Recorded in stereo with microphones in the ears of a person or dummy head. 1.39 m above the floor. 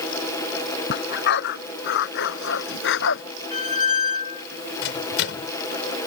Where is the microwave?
70° left (ahead or behind).